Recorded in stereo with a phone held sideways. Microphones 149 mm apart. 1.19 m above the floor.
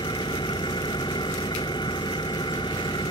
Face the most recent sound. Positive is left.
turn(degrees=30)  # may be behind; listen again after turning